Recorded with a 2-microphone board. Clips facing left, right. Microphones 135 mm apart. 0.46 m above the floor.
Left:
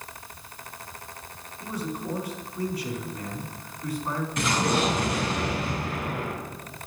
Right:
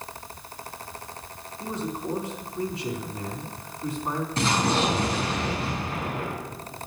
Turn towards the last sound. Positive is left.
turn(degrees=-30)  # may be behind; listen again after turning